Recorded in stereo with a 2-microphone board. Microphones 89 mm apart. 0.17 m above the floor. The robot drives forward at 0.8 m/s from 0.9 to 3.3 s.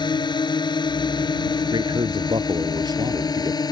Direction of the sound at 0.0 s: 55° left (ahead or behind).